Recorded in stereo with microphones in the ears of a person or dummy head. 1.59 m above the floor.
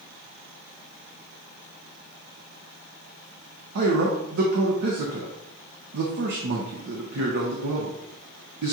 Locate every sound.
3.8 s a man speaking: 60° right (ahead or behind), 0.7 m